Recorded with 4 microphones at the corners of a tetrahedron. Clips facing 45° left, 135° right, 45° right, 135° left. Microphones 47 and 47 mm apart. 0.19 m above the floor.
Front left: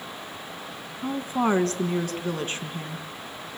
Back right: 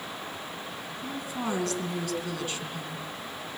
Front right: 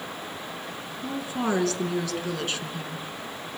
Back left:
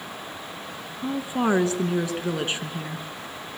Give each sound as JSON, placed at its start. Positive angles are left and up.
{"t": 1.0, "sound": "a woman speaking", "azimuth_deg": 75, "distance_m": 1.9}